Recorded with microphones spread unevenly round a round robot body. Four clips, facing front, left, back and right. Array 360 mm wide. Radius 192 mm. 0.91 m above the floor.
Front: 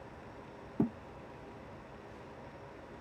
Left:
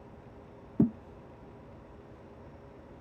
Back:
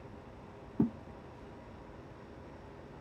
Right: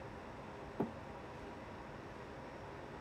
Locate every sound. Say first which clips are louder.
0.8 s a thud: left 13 dB, back 1 dB; 100° left